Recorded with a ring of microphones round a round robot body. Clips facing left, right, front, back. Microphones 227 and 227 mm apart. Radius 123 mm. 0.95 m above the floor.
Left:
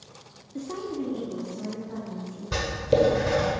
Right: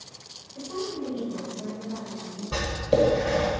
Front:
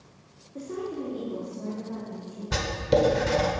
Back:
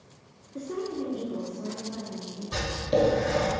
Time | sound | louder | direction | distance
0.6 | a woman speaking | left 1 dB, back 1 dB | 105° left | 1.0 m
2.5 | writing | left 1 dB, front 2 dB | 25° left | 1.3 m